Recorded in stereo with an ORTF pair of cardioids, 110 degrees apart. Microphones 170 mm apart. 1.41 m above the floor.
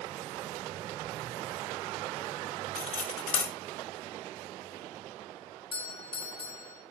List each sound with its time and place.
2.8 s cutlery clinking: 45° left, 3.5 m
5.7 s a doorbell: 35° left, 2.5 m